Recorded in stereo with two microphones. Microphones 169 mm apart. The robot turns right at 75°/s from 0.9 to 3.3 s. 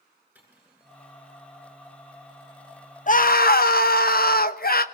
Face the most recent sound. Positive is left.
turn(degrees=65)  # may be behind; listen again after turning